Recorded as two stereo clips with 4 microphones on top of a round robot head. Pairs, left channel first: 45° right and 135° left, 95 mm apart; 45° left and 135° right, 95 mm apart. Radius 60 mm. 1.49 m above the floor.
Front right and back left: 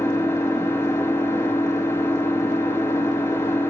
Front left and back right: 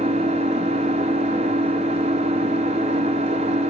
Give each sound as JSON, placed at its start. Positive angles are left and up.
{"t": 0.0, "sound": "an engine running", "azimuth_deg": -110, "distance_m": 0.7}